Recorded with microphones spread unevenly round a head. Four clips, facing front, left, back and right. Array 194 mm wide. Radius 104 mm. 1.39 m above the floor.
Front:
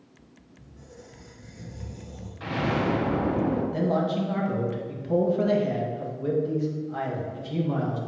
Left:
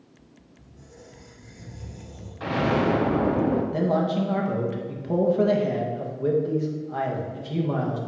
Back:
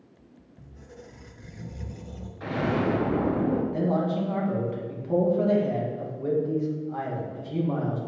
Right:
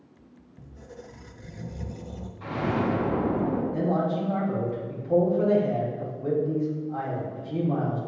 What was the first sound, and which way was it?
A squeak, 130° right.